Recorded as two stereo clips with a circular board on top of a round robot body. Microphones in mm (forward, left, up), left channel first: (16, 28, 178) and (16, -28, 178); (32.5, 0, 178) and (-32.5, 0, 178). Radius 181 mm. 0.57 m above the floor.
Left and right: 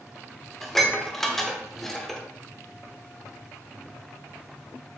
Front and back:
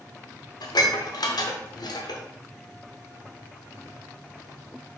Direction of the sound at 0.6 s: 5° left.